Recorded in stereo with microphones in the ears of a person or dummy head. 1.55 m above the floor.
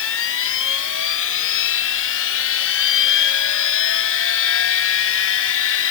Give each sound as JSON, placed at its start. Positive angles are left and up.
{"t": 0.0, "sound": "a machine running", "side_deg": 70}